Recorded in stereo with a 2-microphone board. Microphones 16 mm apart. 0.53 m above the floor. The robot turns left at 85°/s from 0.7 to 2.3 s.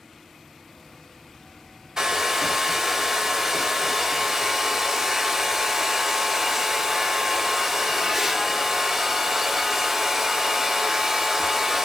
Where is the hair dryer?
40° right (ahead or behind), 0.6 m; by 11.9 s 20° right (ahead or behind), 0.6 m.